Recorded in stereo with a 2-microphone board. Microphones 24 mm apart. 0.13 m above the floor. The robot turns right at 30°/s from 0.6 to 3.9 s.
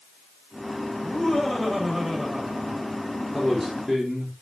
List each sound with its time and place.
1.0 s laughter: 150° left, 6 m; by 2.9 s 150° right, 6 m
3.3 s a man speaking: 5° right (ahead or behind), 5 m; by 4.3 s 20° right (ahead or behind), 5 m